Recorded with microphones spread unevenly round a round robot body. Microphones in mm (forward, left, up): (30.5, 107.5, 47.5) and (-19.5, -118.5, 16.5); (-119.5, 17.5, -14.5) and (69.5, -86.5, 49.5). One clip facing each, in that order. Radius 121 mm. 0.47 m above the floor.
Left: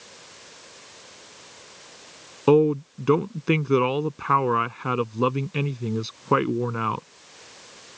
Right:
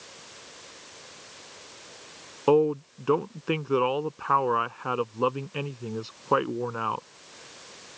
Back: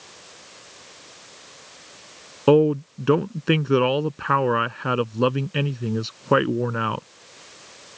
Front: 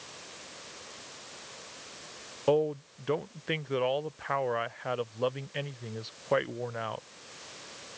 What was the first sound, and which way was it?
A man speaking, 135° left.